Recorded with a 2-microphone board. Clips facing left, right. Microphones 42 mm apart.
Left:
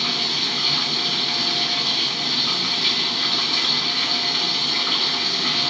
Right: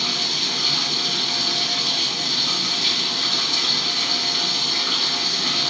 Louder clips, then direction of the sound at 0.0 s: Left 1 dB; 10° left (ahead or behind).